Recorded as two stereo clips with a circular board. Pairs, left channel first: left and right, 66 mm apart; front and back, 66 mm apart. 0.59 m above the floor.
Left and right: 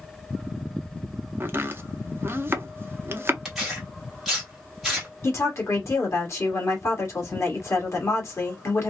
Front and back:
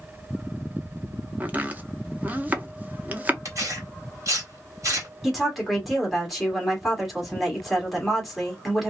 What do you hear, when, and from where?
1.4 s chopping: 125° right, 0.5 m
3.5 s tearing paper: 175° right, 1.9 m
5.2 s a woman speaking: 90° left, 1.6 m